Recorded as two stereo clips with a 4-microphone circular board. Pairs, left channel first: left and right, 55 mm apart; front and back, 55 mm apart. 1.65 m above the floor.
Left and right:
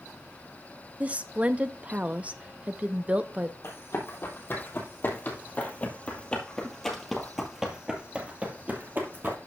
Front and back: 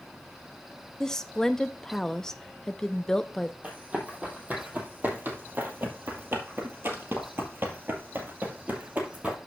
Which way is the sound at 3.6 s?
120° left.